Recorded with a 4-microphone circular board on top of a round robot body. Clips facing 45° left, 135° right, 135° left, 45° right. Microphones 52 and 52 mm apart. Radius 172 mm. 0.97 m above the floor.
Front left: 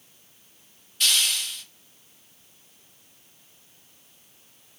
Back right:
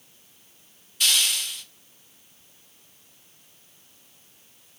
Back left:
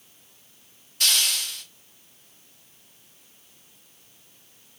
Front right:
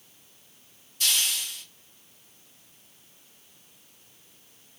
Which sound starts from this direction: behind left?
A hiss, at 1.0 s.